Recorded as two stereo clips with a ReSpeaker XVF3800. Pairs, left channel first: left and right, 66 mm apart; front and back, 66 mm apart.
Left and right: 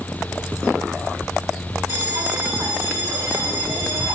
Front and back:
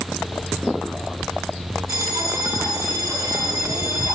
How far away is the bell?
About 6 m.